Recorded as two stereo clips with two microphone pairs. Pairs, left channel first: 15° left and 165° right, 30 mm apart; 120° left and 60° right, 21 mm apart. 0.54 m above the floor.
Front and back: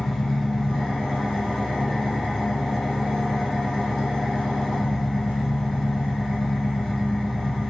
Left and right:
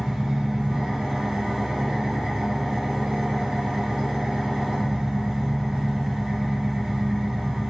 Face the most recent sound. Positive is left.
turn(degrees=-55)